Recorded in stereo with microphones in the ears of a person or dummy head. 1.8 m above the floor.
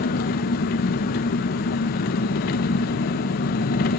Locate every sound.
0.0 s an engine running: 50° left (ahead or behind), 1.3 m